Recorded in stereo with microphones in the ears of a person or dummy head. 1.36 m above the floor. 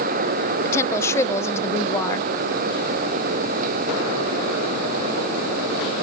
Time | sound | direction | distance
0.7 | a woman speaking | 15° left (ahead or behind) | 1.1 m